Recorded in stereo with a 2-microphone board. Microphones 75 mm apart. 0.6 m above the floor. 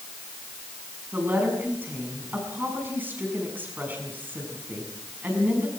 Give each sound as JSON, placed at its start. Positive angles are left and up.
{"t": 1.1, "sound": "a woman speaking", "side_deg": -25, "distance_m": 6.5}